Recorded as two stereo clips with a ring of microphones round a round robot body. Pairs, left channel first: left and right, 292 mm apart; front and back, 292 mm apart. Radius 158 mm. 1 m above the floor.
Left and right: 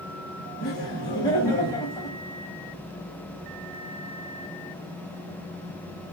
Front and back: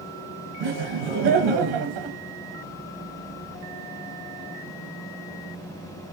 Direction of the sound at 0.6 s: 170° left.